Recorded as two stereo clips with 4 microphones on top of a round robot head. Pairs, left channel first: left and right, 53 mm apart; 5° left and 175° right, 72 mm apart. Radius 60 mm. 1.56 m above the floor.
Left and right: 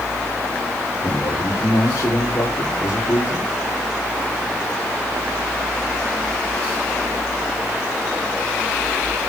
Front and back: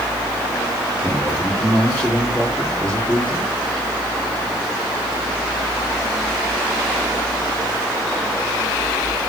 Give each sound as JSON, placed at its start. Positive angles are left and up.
{"t": 1.0, "sound": "a man speaking", "azimuth_deg": 70, "distance_m": 3.5}